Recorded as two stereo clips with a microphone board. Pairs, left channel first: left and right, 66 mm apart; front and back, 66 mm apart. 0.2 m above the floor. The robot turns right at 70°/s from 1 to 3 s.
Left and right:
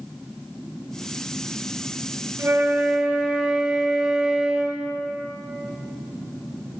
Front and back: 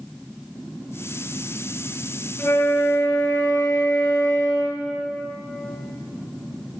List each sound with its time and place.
2.4 s a flute: 55° right, 4.5 m; by 4.9 s 15° right, 4.5 m